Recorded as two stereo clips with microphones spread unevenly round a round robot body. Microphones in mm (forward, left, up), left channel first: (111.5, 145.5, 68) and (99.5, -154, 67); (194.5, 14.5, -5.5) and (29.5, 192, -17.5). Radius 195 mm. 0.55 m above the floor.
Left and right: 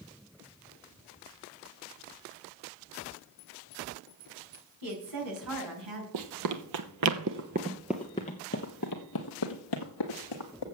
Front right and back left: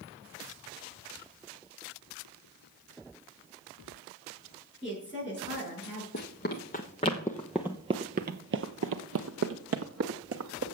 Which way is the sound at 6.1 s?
95° right.